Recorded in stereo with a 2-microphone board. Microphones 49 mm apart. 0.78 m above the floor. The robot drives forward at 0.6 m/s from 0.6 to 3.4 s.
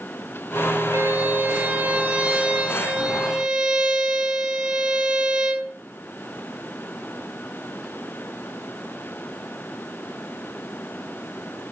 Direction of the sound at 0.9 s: 50° right (ahead or behind).